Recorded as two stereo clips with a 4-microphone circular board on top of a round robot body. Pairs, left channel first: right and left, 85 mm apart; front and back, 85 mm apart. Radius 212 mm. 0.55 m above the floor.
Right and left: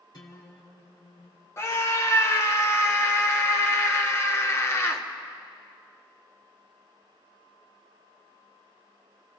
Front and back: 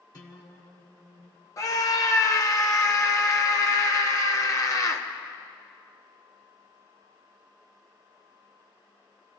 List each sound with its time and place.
0.1 s a guitar: 45° right, 2 m
1.6 s a scream: 40° right, 1.7 m